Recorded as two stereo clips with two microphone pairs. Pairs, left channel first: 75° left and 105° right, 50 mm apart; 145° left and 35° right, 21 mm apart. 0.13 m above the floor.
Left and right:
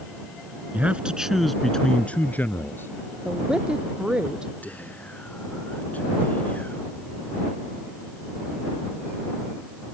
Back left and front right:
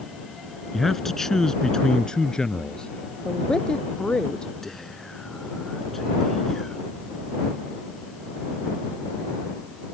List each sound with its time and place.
0.7 s a man speaking: 140° right; by 3.0 s 100° left
3.2 s a woman speaking: 175° right
4.6 s whispering: 80° left